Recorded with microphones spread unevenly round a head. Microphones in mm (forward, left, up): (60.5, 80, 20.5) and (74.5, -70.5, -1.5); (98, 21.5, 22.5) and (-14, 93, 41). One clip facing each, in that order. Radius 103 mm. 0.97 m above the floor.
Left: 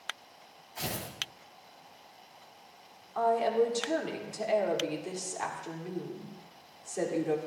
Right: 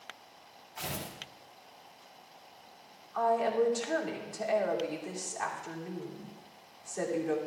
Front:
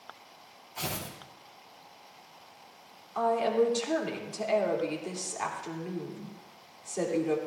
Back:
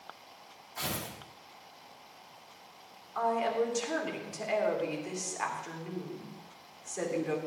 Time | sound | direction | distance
0.8 | tearing paper | 45° left | 4.5 m
3.1 | a woman speaking | 25° left | 2.5 m